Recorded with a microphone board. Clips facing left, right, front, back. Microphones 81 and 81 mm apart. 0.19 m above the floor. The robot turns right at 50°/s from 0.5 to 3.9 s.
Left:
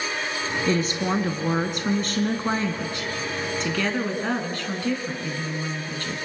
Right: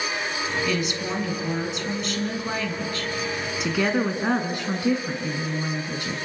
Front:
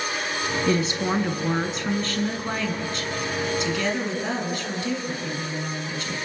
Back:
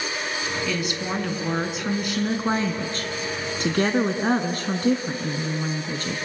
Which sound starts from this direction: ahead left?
A woman speaking, at 0.7 s.